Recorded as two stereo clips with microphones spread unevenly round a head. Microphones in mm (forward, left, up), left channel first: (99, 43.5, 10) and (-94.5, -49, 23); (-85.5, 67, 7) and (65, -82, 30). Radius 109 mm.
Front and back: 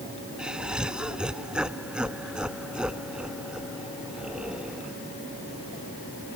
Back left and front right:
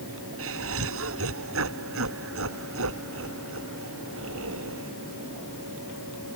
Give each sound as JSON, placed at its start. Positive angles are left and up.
{"t": 0.4, "sound": "laughter", "azimuth_deg": -70}